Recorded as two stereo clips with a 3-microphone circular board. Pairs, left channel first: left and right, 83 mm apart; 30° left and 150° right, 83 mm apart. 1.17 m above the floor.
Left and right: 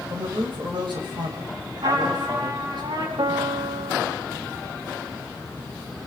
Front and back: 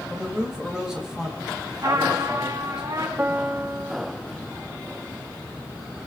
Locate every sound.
0.1 s a man speaking: 65° right, 7.5 m
1.8 s a trumpet: 115° right, 7.5 m
3.2 s a piano: 85° right, 2.5 m